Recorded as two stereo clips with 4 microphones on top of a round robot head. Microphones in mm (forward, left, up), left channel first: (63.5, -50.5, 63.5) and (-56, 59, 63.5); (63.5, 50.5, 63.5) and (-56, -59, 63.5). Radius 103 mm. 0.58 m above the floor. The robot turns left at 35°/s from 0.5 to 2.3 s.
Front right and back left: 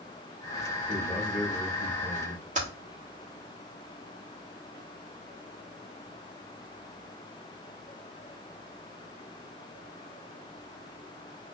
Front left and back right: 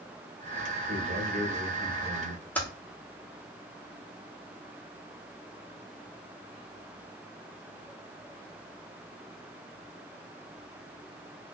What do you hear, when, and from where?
0.9 s a man speaking: 130° right, 1.7 m; by 2.5 s straight behind, 1.7 m
2.5 s typing on a keyboard: 120° left, 1.5 m